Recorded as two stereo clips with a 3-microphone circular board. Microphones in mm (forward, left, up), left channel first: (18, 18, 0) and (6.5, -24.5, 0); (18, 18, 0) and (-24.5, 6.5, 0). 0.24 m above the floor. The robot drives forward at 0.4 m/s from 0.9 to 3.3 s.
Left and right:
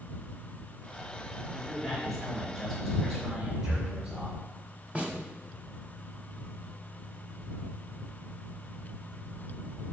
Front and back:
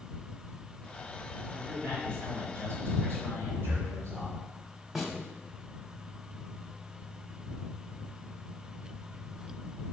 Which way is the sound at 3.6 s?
155° right.